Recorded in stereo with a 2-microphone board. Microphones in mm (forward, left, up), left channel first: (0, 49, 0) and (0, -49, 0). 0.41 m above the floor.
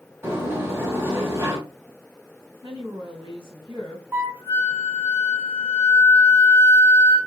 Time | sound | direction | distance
0.2 | a sliding door | 30° right (ahead or behind) | 3 m
2.6 | a woman speaking | 55° right (ahead or behind) | 3 m
4.1 | a flute | 30° right (ahead or behind) | 2.0 m